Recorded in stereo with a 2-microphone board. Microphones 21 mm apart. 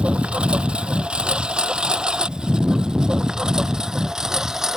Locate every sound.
0.0 s a lawn mower: 65° right (ahead or behind); by 4.8 s 25° right (ahead or behind)